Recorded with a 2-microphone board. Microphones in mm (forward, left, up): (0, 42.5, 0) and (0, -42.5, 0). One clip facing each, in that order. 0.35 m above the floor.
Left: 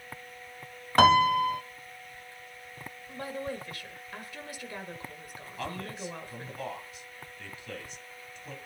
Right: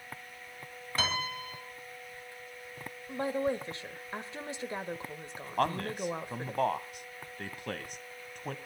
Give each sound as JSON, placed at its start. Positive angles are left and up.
{"t": 1.0, "sound": "a piano", "side_deg": 65, "distance_m": 1.2}
{"t": 3.1, "sound": "a woman speaking", "side_deg": -25, "distance_m": 1.6}
{"t": 5.6, "sound": "a man speaking", "side_deg": -55, "distance_m": 1.9}